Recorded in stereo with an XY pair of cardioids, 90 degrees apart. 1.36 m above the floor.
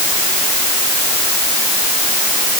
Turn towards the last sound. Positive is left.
No sound to turn to.